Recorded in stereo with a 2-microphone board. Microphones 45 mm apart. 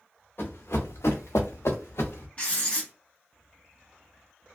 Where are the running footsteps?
55° left (ahead or behind), 0.8 m; by 2.3 s 60° left (ahead or behind), 1.0 m.